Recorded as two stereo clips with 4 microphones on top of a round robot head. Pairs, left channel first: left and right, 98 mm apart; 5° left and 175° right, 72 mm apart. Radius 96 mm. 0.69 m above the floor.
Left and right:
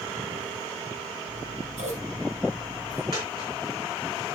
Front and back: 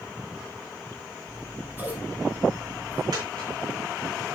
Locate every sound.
1.3 s scissors: 100° right, 3 m
3.1 s a dropped coin: 145° right, 4.5 m